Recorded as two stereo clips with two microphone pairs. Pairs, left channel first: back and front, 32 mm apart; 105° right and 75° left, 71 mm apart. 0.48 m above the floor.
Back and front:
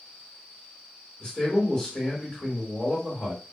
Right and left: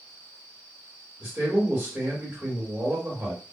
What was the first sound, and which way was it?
A man speaking, 120° left.